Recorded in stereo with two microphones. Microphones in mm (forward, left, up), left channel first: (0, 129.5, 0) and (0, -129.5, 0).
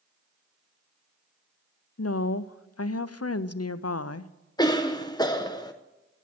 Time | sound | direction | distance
2.0 | a woman speaking | 70° left (ahead or behind) | 0.5 m
4.6 | a cough | 15° left (ahead or behind) | 0.6 m